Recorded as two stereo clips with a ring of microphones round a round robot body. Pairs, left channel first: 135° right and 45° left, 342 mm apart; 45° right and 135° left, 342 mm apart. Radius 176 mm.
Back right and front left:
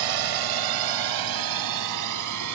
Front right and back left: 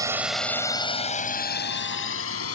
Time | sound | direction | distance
0.0 | a drone | 55° left | ?